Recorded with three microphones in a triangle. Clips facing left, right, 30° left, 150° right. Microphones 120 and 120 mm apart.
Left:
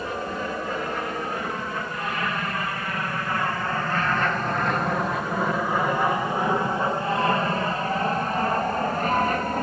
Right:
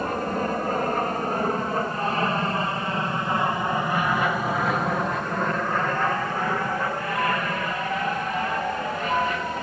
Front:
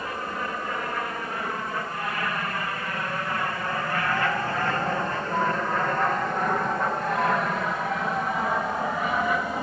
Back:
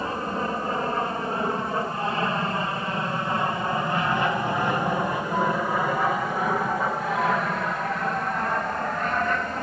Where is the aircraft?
100° right; by 9.6 s 110° left.